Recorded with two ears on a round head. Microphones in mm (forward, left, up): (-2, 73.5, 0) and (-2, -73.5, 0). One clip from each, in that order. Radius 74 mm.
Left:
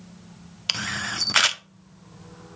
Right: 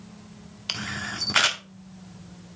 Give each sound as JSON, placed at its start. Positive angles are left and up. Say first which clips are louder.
{"t": 0.7, "sound": "a camera shutter", "louder": "left 4 dB", "side_deg": 30, "distance_m": 0.7}